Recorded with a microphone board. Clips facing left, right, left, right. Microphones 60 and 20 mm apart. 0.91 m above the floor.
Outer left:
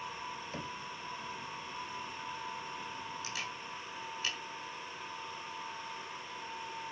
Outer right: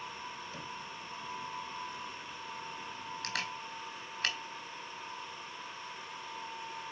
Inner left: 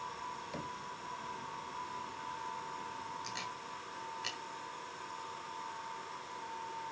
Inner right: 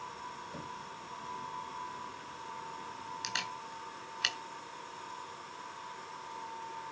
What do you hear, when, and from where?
0.5 s knocking: 40° left (ahead or behind), 1.0 m
3.2 s a camera shutter: 65° right (ahead or behind), 3.5 m